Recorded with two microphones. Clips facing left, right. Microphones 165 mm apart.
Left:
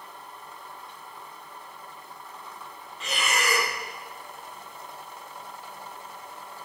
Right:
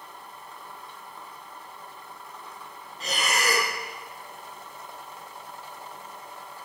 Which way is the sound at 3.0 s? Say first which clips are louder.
Right 1 dB; 40° right (ahead or behind).